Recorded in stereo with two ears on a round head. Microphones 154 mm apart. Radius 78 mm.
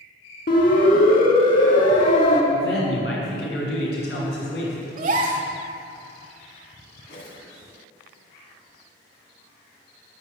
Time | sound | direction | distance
0.5 | a siren | 60° left (ahead or behind) | 4.5 m
2.5 | a man speaking | 65° left (ahead or behind) | 7 m
5.0 | a gasp | 50° right (ahead or behind) | 1.8 m
7.1 | a whoosh | 80° left | 3.5 m